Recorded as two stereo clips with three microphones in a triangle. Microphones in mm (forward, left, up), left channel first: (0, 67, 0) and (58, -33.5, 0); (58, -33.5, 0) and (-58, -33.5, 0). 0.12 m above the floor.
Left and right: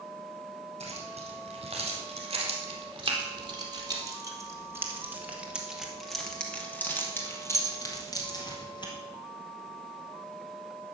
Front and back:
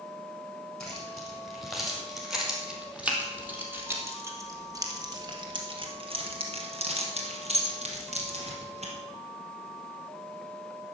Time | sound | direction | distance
0.8 | keys jangling | 85° right | 4 m